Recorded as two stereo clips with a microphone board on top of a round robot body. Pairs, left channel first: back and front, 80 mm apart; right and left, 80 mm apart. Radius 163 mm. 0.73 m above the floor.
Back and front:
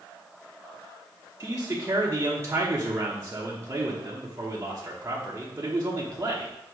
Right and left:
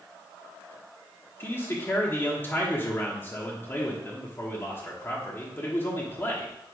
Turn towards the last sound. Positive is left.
turn(degrees=-40)